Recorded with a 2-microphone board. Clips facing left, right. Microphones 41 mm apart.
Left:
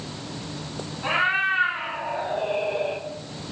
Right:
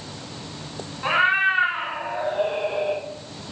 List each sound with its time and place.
1.0 s a cat meowing: 25° right (ahead or behind), 0.9 m; by 3.0 s 65° right (ahead or behind), 1.5 m